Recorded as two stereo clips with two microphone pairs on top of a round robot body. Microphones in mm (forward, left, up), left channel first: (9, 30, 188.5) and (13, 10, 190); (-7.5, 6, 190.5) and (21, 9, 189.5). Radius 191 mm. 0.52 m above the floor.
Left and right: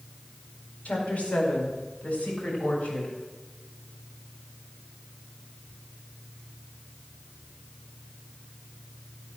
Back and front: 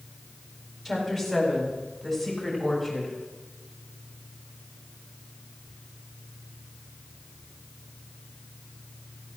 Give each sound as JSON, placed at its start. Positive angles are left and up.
{"t": 0.8, "sound": "a woman speaking", "azimuth_deg": 90, "distance_m": 5.0}